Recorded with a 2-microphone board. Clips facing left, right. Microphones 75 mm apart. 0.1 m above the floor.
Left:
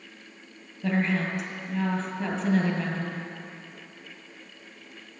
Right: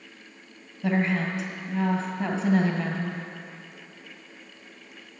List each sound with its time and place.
0.8 s a woman speaking: 10° right (ahead or behind), 1.9 m